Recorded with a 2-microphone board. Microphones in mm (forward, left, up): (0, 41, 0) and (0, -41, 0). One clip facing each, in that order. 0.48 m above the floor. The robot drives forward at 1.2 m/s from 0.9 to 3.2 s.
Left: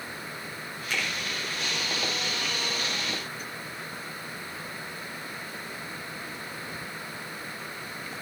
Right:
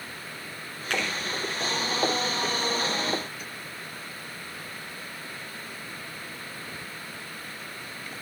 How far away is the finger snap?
About 6 m.